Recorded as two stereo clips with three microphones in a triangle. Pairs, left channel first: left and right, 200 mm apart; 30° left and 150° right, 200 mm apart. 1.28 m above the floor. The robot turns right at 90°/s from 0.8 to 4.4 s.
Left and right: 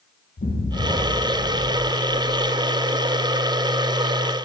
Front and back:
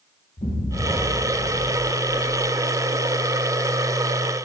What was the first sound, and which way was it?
An explosion, 75° left.